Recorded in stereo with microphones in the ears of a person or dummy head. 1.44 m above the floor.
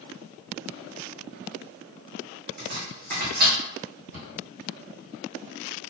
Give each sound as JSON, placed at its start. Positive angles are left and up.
{"t": 2.6, "sound": "chopping", "side_deg": -50, "distance_m": 0.8}
{"t": 4.1, "sound": "a cupboard door", "side_deg": -70, "distance_m": 1.2}